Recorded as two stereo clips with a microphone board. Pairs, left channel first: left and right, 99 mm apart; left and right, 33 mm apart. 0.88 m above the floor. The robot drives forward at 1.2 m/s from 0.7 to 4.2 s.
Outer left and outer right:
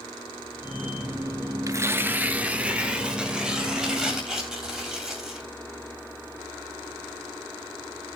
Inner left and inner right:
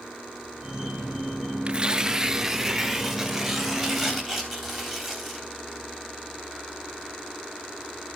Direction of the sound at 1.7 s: 35° right (ahead or behind).